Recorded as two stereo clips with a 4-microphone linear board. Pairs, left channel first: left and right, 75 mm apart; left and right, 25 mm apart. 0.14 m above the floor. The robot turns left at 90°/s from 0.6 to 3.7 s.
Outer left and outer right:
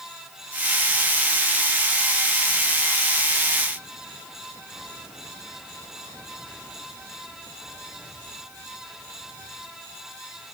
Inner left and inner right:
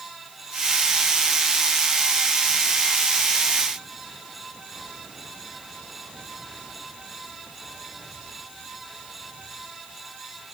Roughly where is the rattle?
I don't hear a rattle.